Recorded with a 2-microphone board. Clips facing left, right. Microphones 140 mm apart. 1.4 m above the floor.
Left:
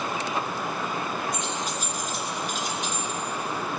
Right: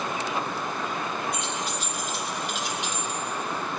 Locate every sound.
1.3 s keys jangling: 45° left (ahead or behind), 2 m